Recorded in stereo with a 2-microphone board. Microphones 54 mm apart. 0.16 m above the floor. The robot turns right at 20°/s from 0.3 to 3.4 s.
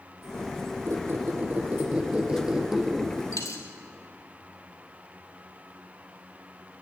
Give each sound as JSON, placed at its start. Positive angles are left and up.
{"t": 0.9, "sound": "a squeak", "azimuth_deg": -45, "distance_m": 3.0}
{"t": 3.3, "sound": "a dropped coin", "side_deg": 65, "distance_m": 3.0}